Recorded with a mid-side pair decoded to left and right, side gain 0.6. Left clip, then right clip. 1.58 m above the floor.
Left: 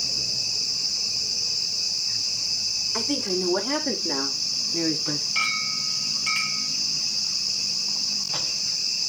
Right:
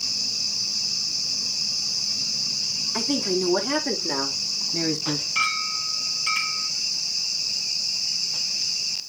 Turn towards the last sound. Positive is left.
turn(degrees=5)